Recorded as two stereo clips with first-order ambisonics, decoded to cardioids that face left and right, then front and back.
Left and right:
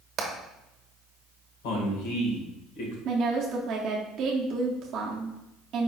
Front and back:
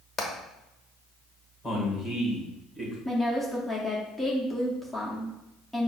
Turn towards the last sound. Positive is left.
turn(degrees=-90)